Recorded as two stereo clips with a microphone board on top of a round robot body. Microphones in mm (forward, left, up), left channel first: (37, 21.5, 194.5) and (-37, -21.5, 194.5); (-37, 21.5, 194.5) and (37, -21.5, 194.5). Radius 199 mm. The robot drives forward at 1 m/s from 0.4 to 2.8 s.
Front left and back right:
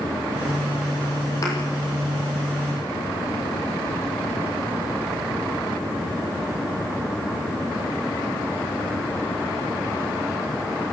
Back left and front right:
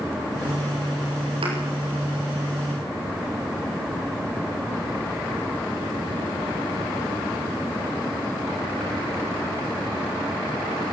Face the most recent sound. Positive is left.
turn(degrees=-30)